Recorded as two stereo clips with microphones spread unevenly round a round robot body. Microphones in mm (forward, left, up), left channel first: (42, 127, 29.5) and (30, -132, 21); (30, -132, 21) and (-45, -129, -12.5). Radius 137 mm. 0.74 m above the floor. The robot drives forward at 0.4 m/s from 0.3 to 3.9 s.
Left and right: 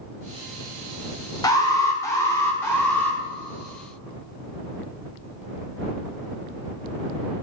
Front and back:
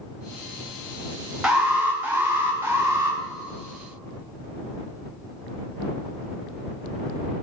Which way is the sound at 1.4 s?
155° left.